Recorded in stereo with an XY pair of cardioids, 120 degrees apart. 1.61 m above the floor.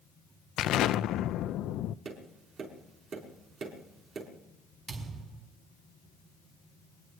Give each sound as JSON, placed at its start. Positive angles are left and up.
{"t": 0.6, "sound": "an explosion", "azimuth_deg": 65, "distance_m": 0.5}
{"t": 2.0, "sound": "tapping", "azimuth_deg": -50, "distance_m": 5.0}
{"t": 4.9, "sound": "a thud", "azimuth_deg": -50, "distance_m": 5.5}